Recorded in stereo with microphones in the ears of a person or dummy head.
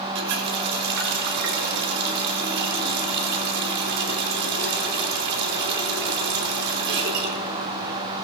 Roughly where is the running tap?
Right.